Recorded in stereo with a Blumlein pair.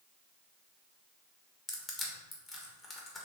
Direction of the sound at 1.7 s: 10° left.